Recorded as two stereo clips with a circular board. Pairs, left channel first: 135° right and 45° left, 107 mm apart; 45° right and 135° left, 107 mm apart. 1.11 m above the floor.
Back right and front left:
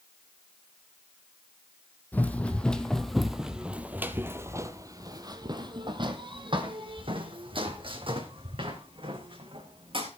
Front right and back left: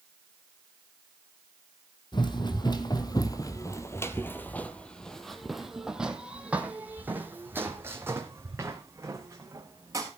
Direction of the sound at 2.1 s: 65° right.